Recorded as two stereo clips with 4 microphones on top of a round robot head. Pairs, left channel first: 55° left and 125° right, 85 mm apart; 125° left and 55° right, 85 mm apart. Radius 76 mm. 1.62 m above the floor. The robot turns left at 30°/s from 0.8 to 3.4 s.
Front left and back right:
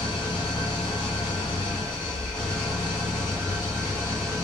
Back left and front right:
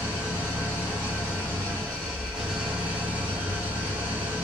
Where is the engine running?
80° left, 1.1 m; by 4.5 s straight ahead, 1.1 m.